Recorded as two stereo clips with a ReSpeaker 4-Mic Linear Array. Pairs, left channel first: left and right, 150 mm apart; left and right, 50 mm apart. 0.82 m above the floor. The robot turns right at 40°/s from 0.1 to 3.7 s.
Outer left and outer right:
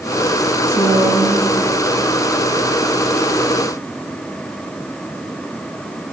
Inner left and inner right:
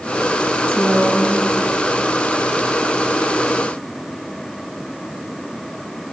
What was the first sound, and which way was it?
A woman speaking, 140° right.